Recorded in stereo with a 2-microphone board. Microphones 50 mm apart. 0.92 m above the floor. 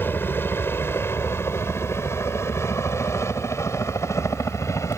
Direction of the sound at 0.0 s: 45° left (ahead or behind).